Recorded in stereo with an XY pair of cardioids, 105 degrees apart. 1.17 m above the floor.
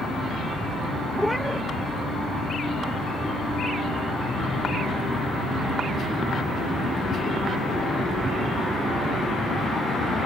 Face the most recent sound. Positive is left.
turn(degrees=5)